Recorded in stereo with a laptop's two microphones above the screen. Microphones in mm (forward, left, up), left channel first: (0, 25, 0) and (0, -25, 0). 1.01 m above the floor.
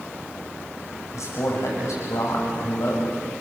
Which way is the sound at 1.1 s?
80° left.